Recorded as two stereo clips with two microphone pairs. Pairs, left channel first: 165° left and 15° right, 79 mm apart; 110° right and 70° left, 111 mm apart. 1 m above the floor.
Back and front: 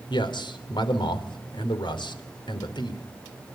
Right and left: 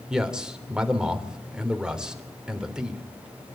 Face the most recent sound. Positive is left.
turn(degrees=155)